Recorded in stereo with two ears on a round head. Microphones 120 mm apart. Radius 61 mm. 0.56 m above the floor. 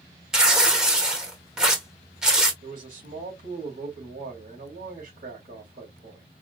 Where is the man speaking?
65° right (ahead or behind), 2.5 m.